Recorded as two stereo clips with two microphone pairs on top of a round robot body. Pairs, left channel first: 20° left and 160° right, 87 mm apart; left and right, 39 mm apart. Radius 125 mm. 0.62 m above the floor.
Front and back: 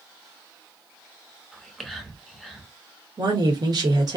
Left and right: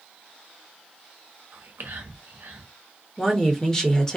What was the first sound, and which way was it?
Whispering, 70° right.